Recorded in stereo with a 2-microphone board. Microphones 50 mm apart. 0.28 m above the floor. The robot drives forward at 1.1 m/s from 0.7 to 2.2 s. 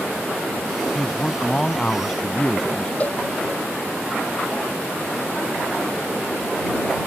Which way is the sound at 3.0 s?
30° left (ahead or behind).